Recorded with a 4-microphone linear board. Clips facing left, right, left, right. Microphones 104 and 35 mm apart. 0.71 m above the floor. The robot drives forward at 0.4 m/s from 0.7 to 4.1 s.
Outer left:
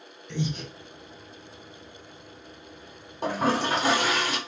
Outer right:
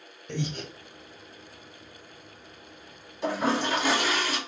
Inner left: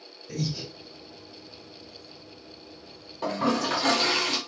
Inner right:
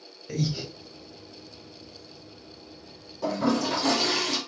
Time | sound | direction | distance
0.3 | breathing | 55° right (ahead or behind) | 1.1 m
3.2 | a toilet flushing | 45° left (ahead or behind) | 1.3 m